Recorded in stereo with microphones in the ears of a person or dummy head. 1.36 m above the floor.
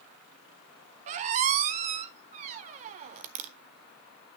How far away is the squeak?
About 0.5 m.